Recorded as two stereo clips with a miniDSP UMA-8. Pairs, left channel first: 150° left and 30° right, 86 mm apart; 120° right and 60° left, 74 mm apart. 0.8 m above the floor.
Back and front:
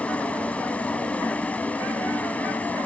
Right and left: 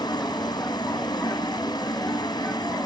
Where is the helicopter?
135° right; by 2.9 s 140° right.